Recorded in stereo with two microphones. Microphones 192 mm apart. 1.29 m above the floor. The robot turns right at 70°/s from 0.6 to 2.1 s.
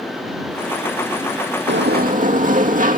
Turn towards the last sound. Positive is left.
turn(degrees=-45)  # may be behind; listen again after turning